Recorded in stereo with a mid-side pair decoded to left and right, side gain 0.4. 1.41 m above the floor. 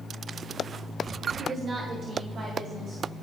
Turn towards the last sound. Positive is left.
turn(degrees=-65)